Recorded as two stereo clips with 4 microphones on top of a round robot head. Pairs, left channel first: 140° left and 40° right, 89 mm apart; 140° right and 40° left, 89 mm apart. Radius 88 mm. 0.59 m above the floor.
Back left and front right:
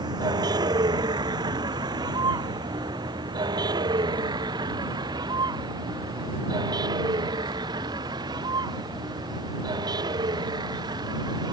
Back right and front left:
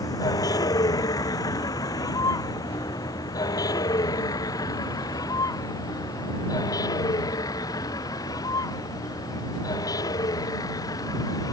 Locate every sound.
0.0 s a vehicle: 85° right